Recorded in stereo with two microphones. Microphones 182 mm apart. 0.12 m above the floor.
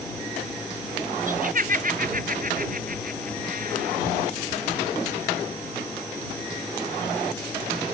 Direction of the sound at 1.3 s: 50° right (ahead or behind).